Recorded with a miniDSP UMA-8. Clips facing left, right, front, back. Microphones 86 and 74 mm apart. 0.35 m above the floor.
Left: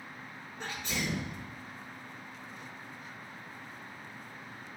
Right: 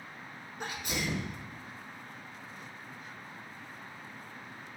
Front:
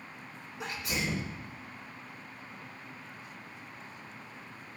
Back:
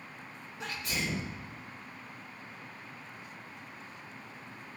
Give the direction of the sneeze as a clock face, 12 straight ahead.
1 o'clock.